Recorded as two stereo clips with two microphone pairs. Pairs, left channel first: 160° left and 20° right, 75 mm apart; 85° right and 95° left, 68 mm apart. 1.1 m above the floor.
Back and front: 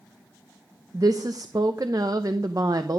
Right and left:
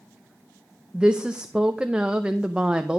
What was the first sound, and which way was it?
A woman speaking, 15° left.